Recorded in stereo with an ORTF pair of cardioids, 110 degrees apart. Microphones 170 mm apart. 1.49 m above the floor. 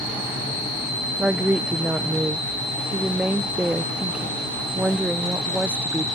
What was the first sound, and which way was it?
A woman speaking, 5° right.